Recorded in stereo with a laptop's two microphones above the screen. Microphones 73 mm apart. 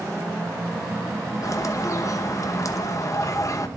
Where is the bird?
45° left (ahead or behind), 0.8 m.